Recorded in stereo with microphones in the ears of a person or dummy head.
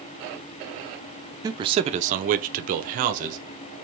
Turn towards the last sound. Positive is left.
turn(degrees=-40)  # may be behind; listen again after turning